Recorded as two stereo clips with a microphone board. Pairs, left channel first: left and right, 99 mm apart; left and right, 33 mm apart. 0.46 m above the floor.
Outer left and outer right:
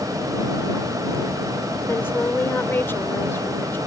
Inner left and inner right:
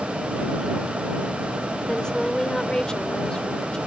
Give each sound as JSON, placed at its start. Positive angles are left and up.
{"t": 1.9, "sound": "a woman speaking", "side_deg": 25}